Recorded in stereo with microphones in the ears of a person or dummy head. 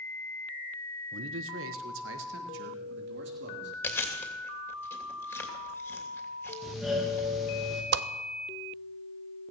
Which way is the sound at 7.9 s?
55° right (ahead or behind).